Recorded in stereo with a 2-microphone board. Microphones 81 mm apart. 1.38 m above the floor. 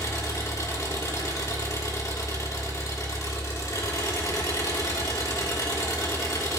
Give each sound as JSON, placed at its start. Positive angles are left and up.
{"t": 0.0, "sound": "an engine running", "side_deg": 40, "distance_m": 2.5}